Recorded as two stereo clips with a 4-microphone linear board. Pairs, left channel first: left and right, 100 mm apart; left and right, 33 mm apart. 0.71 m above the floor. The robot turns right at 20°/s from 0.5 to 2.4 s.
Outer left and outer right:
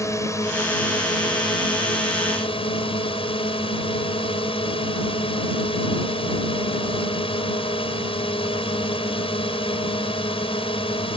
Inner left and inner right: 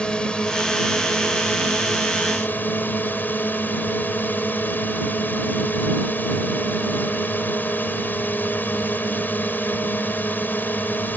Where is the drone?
30° left; by 11.2 s 70° left.